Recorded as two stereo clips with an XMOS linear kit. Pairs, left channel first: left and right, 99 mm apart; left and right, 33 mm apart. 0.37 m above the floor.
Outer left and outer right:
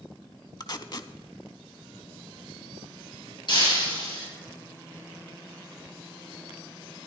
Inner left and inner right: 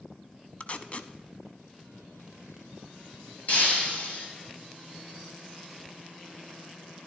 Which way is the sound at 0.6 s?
40° left (ahead or behind).